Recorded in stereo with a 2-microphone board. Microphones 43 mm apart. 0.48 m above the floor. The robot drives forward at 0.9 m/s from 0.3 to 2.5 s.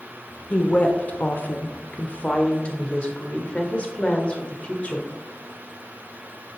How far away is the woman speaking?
About 1.4 m.